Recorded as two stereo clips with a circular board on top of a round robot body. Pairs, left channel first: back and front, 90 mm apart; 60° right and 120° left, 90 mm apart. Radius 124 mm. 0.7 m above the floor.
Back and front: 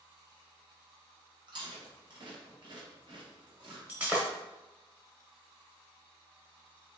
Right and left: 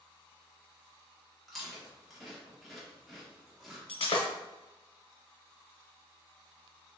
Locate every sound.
1.5 s chewing: 30° left, 1.7 m
3.9 s breaking glass: 75° right, 0.7 m